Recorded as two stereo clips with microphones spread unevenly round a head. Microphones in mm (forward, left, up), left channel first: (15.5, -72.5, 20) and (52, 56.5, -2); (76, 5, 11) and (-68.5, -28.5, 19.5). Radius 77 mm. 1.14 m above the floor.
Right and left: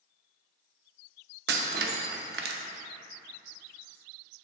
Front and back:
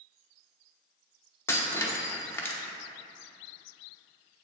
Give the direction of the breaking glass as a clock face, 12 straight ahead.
9 o'clock.